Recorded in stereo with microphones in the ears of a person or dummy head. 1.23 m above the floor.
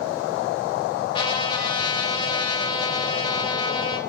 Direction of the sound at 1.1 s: 25° left (ahead or behind).